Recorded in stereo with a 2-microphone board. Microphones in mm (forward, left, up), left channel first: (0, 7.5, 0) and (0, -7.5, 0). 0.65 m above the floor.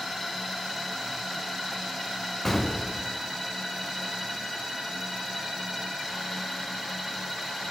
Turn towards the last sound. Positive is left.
turn(degrees=20)  # may be behind; listen again after turning